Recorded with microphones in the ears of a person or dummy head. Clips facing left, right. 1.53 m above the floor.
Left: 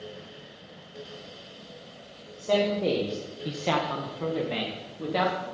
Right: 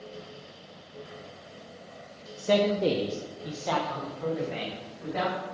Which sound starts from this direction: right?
A man speaking, at 2.4 s.